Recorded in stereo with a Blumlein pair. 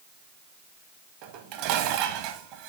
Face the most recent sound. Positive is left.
turn(degrees=-40)